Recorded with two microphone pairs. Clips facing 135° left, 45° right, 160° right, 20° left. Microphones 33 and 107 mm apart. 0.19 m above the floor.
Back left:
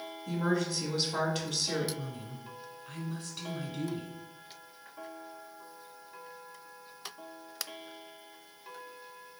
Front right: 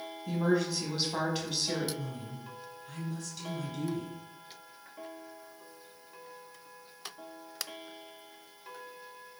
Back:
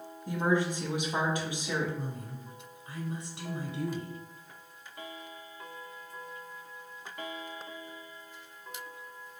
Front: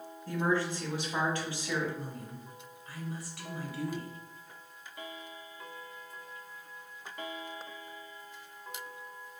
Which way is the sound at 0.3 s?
120° right.